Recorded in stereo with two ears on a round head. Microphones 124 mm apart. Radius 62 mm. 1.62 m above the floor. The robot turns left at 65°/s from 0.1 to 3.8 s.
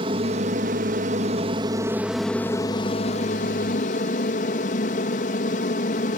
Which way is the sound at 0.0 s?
45° right.